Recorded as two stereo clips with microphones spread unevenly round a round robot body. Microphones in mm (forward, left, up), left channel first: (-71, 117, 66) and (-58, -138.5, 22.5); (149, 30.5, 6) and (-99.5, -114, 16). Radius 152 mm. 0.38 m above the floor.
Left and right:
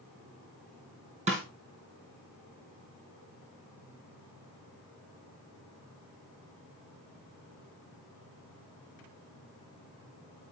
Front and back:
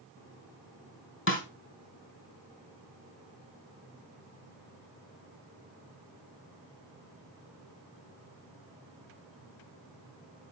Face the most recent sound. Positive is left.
turn(degrees=-15)